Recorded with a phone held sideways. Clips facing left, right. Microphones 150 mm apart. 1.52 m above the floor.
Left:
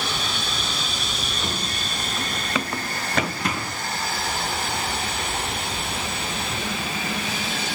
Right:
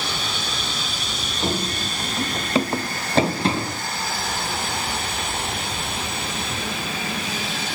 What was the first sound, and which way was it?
Running footsteps, 35° right (ahead or behind).